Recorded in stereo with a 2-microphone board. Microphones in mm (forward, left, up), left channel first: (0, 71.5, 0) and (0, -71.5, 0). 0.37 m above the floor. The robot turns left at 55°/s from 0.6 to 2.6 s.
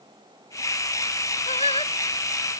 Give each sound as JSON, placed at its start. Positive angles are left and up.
{"t": 1.5, "sound": "singing", "side_deg": 55}